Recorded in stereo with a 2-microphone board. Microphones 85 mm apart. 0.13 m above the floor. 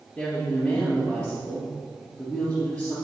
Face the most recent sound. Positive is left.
turn(degrees=25)  # may be behind; listen again after turning